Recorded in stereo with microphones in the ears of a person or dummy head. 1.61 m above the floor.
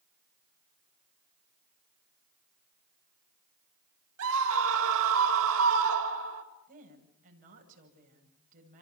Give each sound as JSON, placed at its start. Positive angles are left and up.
{"t": 4.2, "sound": "a scream", "side_deg": -75, "distance_m": 5.0}
{"t": 6.7, "sound": "a woman speaking", "side_deg": -40, "distance_m": 9.0}